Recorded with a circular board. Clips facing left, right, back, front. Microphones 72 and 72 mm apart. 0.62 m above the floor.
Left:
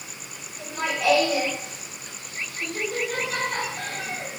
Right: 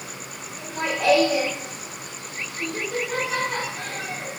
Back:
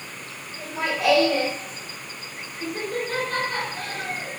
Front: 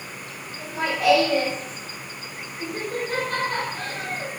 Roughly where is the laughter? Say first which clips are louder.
Right 1 dB, front 1 dB; behind right.